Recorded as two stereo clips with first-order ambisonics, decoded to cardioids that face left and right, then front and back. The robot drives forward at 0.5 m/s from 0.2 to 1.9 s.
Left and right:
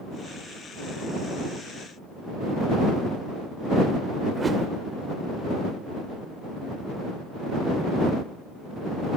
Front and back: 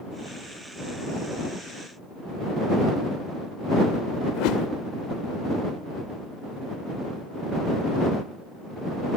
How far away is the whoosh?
About 1.4 m.